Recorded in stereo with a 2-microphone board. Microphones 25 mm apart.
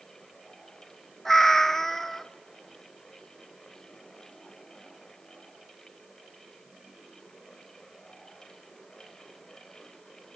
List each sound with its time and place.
1.2 s a cat meowing: 10° left (ahead or behind), 0.8 m